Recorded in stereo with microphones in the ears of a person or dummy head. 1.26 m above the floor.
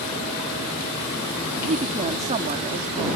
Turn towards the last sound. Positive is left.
turn(degrees=-35)  # may be behind; listen again after turning